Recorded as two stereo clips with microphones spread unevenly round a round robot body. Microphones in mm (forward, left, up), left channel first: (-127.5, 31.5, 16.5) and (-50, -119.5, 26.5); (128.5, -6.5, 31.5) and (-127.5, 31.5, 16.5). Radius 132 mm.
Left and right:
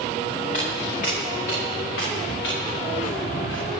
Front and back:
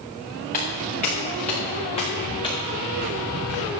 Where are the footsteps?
50° left, 5 m; by 3.7 s 75° left, 3.5 m.